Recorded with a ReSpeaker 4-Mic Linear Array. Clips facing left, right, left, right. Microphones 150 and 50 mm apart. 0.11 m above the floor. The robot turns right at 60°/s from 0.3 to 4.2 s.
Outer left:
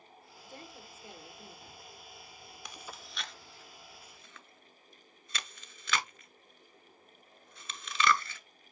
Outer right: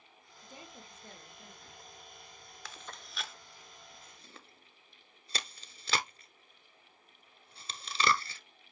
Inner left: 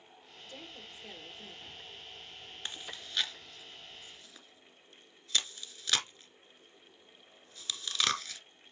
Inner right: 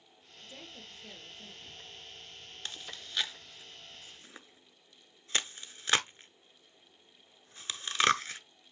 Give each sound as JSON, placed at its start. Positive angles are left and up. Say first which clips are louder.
{"t": 0.4, "sound": "a woman speaking", "louder": "outer left 1 dB, inner left 1 dB", "azimuth_deg": -25, "distance_m": 2.5}
{"t": 2.6, "sound": "chewing", "louder": "outer left 1 dB, inner left 1 dB", "side_deg": 15, "distance_m": 0.8}